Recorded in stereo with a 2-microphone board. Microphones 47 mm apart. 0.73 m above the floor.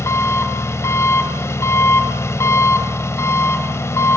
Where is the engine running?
80° left, 1.4 m.